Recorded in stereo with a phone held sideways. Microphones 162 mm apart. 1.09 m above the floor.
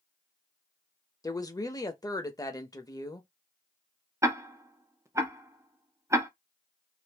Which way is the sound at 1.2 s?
20° left (ahead or behind).